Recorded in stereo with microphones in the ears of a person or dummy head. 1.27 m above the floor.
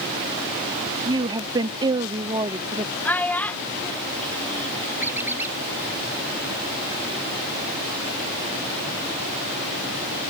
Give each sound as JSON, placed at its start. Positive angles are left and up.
{"t": 1.1, "sound": "a woman speaking", "side_deg": -25}
{"t": 3.0, "sound": "a child speaking", "side_deg": 10}
{"t": 5.0, "sound": "a squeak", "side_deg": -10}